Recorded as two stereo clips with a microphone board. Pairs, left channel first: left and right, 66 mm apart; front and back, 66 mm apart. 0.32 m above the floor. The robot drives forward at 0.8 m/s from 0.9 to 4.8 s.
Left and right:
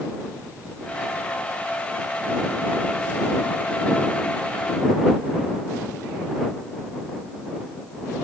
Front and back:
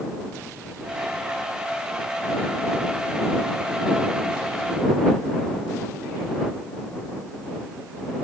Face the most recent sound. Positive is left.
No sound to turn to.